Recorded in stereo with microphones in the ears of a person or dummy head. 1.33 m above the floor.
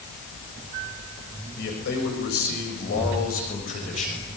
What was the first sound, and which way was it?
A man speaking, 60° left (ahead or behind).